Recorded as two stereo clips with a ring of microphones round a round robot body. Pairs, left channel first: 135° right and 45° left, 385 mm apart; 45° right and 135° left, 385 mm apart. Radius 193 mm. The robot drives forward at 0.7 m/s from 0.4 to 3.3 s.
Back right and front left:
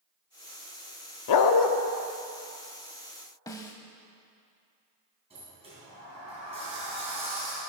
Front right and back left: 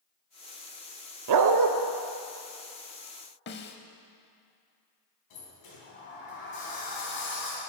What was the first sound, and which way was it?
A dog barking, straight behind.